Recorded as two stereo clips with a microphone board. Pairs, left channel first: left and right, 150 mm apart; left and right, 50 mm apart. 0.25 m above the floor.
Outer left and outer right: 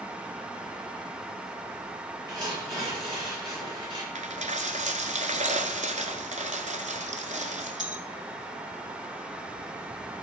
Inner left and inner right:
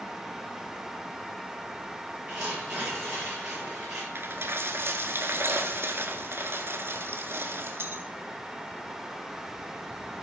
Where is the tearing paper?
30° right (ahead or behind), 6 m.